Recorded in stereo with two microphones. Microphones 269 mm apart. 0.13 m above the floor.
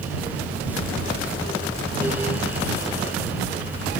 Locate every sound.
Only background noise.